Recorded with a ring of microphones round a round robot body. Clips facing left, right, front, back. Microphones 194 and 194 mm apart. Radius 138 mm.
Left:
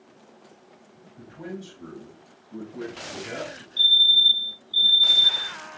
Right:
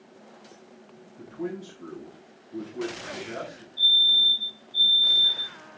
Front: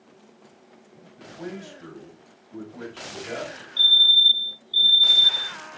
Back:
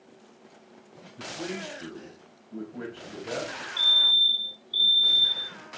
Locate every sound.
1.2 s a man speaking: 130° left, 5.5 m; by 3.7 s 105° left, 5.5 m
3.8 s a fire alarm: 115° left, 7 m